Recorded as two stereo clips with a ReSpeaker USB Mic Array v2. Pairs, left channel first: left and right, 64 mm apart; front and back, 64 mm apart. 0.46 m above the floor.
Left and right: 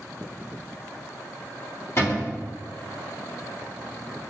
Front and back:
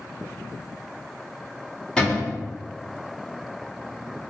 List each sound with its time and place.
2.0 s a cupboard door: 75° left, 1.8 m